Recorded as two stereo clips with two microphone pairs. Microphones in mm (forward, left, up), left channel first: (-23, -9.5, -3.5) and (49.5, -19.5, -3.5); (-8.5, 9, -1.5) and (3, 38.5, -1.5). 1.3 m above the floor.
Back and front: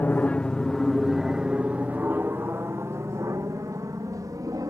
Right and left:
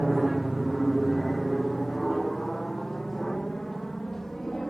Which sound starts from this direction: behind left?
An aircraft, at 0.0 s.